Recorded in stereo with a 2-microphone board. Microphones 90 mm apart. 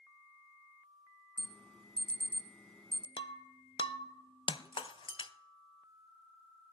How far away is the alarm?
About 1.0 m.